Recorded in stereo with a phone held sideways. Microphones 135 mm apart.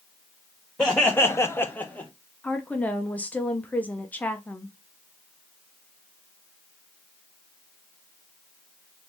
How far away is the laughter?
About 0.9 m.